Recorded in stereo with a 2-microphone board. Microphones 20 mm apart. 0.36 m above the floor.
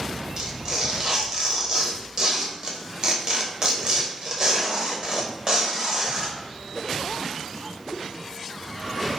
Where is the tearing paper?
40° right (ahead or behind), 0.8 m.